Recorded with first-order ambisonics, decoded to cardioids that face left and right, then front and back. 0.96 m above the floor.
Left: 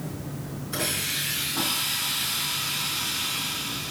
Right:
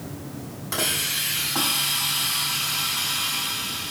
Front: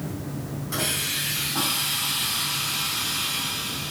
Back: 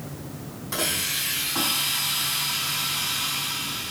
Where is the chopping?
I don't hear chopping.